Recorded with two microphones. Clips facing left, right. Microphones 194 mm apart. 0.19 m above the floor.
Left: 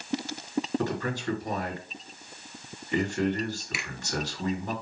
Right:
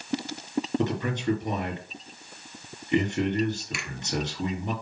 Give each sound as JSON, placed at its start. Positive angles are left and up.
{"t": 0.8, "sound": "a man speaking", "side_deg": -20, "distance_m": 3.5}
{"t": 3.7, "sound": "a finger snap", "side_deg": 5, "distance_m": 2.5}